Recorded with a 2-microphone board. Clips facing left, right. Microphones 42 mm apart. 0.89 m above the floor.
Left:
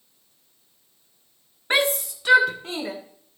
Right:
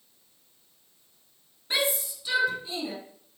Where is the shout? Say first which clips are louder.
Left 6 dB; 60° left (ahead or behind), 1.4 m; by 2.9 s 80° left, 2.5 m.